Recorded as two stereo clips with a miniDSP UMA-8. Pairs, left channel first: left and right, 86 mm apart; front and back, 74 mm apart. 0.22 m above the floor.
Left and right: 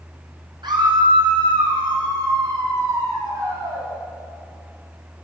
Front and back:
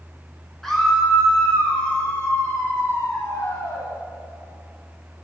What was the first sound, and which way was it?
A scream, 85° right.